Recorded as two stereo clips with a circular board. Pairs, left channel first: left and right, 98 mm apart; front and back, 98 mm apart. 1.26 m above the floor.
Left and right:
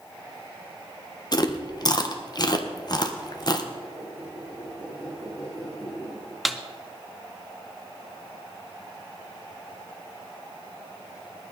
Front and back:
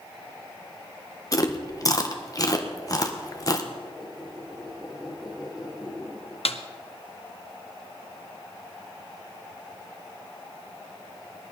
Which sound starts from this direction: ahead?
A snare drum, at 6.5 s.